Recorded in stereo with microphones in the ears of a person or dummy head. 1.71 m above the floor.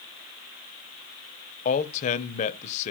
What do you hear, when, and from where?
1.6 s a man speaking: 45° left (ahead or behind), 0.8 m